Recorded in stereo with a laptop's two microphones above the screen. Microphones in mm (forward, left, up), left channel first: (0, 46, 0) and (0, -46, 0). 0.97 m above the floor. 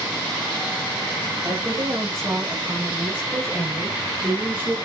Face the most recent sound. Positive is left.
turn(degrees=-20)  # may be behind; listen again after turning